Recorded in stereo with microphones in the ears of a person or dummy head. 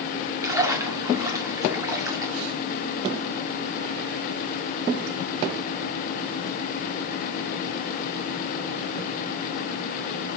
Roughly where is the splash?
Right.